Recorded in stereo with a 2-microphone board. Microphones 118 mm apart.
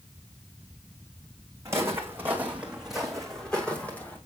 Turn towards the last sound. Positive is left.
turn(degrees=15)  # may be behind; listen again after turning